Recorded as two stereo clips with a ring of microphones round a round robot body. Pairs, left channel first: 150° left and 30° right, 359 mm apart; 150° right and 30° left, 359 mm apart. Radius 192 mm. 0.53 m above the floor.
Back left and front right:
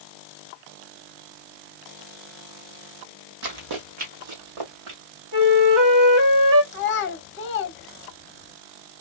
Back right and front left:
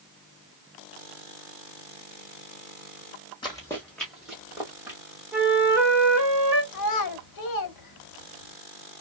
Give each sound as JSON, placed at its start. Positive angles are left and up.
{"t": 3.4, "sound": "running footsteps", "azimuth_deg": -70, "distance_m": 1.3}
{"t": 5.3, "sound": "a flute", "azimuth_deg": -55, "distance_m": 1.8}
{"t": 6.7, "sound": "a child speaking", "azimuth_deg": -155, "distance_m": 1.0}